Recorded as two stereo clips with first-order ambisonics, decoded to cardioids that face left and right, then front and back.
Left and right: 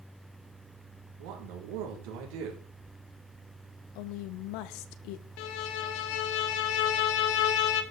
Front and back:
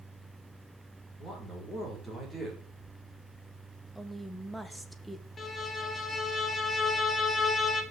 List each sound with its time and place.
1.2 s a man speaking: 90° right, 5 m
4.0 s a woman speaking: 90° left, 1.3 m
5.4 s a violin: 75° left, 1.7 m